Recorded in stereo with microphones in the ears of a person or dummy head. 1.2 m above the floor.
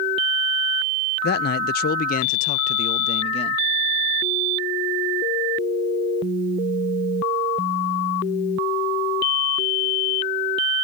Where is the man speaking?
50° left (ahead or behind); by 3.6 s 30° left (ahead or behind).